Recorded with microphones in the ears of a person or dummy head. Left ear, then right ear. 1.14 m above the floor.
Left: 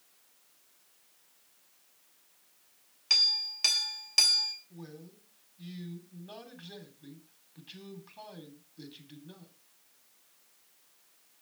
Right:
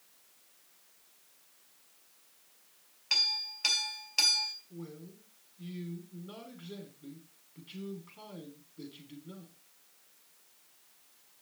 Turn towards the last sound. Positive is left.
turn(degrees=25)  # may be behind; listen again after turning